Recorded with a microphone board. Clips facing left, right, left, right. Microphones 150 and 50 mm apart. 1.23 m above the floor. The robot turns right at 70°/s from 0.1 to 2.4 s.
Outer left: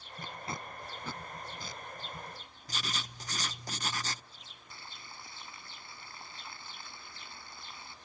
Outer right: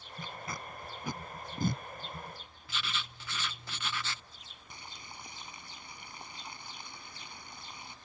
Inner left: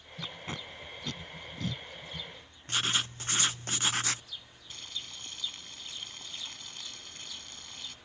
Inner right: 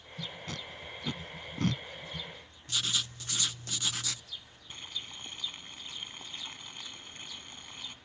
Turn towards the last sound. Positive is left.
turn(degrees=-20)  # may be behind; listen again after turning